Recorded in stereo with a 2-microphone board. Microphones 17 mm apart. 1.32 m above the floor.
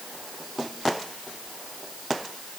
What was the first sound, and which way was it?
Only background noise.